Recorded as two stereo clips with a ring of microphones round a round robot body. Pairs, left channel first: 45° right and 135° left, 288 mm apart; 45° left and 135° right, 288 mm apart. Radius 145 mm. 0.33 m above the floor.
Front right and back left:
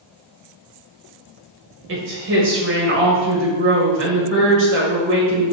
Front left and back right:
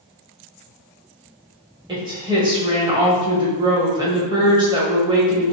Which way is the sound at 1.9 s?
155° left.